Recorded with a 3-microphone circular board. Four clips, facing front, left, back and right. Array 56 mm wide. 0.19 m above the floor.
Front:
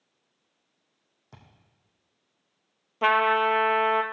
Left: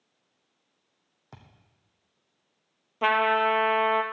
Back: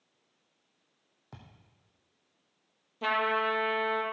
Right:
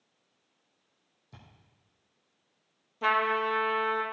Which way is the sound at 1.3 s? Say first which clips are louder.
Left 3 dB, back 1 dB; 115° left.